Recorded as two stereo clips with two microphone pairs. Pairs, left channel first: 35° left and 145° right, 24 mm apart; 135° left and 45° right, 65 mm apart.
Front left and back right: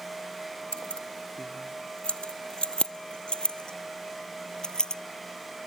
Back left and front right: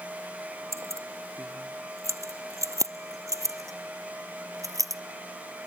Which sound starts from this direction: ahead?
Keys jangling, at 0.7 s.